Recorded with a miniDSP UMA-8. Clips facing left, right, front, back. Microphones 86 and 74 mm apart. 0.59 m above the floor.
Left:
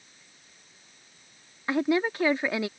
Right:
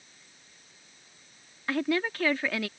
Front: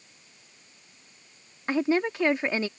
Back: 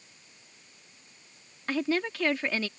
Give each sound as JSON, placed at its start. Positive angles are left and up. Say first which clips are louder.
{"t": 1.7, "sound": "a woman speaking", "louder": "left 3 dB, front 4 dB", "azimuth_deg": 40}